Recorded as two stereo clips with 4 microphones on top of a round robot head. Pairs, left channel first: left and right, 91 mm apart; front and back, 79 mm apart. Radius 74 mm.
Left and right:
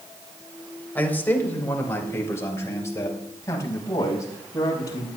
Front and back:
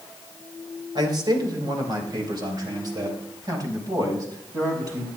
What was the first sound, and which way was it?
A man speaking, 160° left.